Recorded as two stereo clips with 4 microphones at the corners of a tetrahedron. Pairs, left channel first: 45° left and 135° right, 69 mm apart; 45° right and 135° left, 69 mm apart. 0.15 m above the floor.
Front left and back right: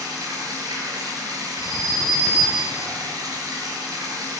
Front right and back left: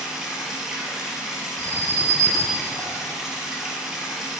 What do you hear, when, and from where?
0.0 s running water: 145° right, 2.5 m
1.6 s an alarm: 75° right, 1.9 m